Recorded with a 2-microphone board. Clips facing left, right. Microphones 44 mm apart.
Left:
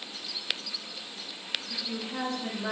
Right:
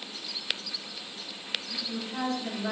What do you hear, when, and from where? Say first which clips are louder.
1.7 s a woman speaking: even; 35° left (ahead or behind), 1.8 m